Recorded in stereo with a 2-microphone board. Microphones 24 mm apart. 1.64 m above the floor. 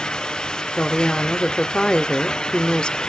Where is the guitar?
I don't hear a guitar.